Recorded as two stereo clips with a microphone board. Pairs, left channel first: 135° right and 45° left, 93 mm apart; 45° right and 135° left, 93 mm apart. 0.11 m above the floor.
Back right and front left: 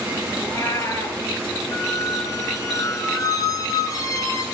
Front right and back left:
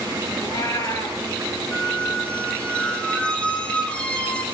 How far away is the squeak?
About 1.0 m.